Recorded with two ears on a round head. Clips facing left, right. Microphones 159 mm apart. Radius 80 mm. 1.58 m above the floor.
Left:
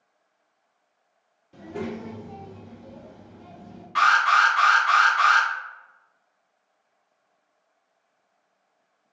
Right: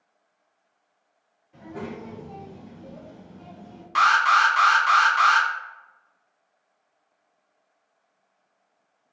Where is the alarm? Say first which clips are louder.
Even; 55° right (ahead or behind), 1.0 m.